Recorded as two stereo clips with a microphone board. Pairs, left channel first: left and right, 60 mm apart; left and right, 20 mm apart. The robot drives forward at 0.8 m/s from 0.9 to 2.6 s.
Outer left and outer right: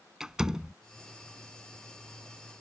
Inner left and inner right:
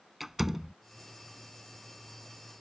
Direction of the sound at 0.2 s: 10° right (ahead or behind).